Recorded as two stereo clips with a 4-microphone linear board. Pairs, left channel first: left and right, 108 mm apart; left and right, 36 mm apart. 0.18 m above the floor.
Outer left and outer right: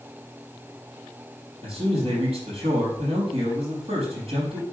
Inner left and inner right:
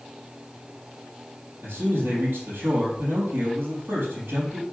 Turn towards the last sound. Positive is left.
turn(degrees=-65)  # may be behind; listen again after turning